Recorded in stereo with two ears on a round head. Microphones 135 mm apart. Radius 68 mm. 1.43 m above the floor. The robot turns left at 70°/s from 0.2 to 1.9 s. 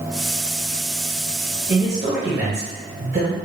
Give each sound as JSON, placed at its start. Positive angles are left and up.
{"t": 1.7, "sound": "a man speaking", "side_deg": -75, "distance_m": 1.3}